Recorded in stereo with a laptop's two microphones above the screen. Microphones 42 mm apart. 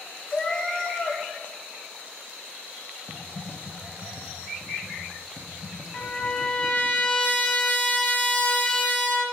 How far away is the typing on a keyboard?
About 0.9 m.